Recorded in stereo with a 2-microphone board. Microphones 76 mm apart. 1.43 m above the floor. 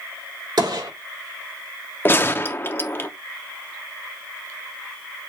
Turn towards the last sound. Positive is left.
turn(degrees=30)  # may be behind; listen again after turning